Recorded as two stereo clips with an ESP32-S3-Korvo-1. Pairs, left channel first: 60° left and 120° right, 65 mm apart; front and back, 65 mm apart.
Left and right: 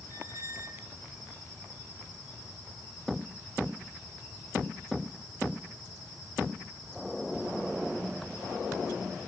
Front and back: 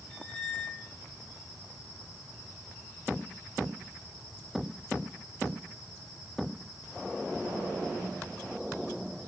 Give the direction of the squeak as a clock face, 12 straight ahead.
3 o'clock.